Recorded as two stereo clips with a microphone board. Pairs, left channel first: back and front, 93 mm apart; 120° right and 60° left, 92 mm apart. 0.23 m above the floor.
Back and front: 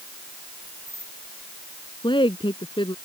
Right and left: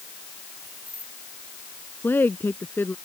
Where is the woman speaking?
175° left.